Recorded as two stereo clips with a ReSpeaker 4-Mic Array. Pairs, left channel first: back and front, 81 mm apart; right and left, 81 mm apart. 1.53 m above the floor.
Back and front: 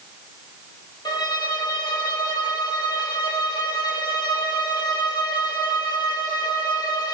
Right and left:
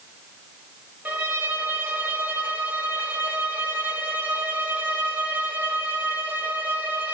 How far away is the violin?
About 1.4 m.